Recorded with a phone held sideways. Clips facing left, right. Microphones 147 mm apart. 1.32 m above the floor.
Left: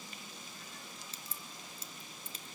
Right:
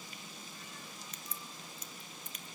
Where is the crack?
30° left (ahead or behind), 0.9 m.